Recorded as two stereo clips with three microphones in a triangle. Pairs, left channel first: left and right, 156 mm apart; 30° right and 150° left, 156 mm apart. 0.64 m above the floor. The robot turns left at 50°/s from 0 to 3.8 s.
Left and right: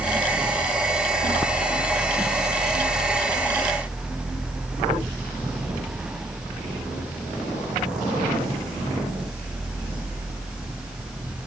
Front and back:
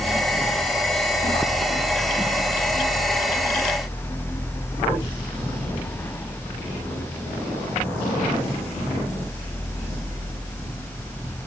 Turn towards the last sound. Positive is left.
No sound to turn to.